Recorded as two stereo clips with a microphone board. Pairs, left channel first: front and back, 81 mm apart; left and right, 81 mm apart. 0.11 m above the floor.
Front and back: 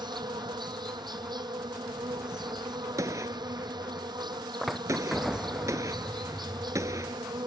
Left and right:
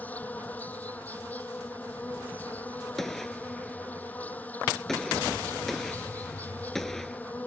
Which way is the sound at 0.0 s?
160° left.